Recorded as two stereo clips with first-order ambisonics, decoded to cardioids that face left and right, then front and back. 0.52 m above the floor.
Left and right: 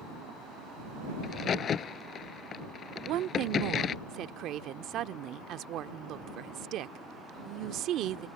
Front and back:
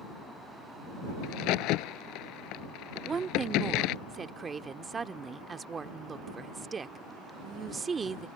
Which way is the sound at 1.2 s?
30° left.